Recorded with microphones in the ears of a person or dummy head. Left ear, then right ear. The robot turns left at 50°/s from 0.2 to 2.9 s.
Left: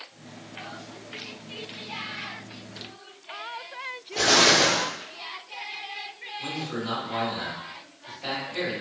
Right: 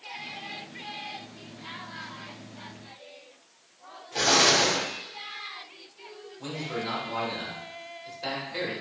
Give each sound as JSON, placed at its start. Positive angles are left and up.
{"t": 4.2, "sound": "an explosion", "side_deg": -70, "distance_m": 1.7}
{"t": 6.4, "sound": "a man speaking", "side_deg": -80, "distance_m": 1.8}